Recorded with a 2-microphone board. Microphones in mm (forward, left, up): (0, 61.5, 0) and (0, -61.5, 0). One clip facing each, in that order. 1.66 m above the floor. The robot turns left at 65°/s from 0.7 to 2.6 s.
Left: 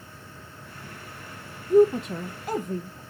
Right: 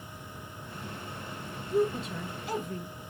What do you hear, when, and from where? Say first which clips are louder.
1.7 s a woman speaking: left 10 dB; 50° left (ahead or behind), 0.5 m; by 3.0 s 45° left (ahead or behind), 0.5 m